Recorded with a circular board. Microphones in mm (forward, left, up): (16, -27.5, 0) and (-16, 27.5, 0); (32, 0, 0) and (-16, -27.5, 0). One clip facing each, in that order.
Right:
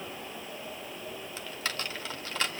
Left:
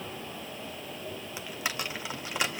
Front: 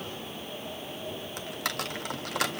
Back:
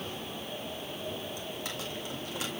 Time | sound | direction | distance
1.4 | typing on a keyboard | 45° left | 1.2 m